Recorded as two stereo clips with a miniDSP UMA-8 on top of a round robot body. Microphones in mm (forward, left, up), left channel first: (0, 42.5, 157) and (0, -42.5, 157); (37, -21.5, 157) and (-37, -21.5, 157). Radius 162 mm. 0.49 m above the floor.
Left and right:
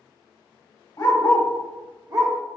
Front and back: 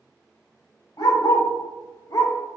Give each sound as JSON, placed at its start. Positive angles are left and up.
{"t": 1.0, "sound": "a dog barking", "azimuth_deg": 35, "distance_m": 1.0}